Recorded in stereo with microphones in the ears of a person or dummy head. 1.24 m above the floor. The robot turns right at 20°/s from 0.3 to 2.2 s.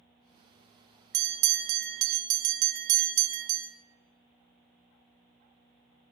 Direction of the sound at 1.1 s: 60° right (ahead or behind).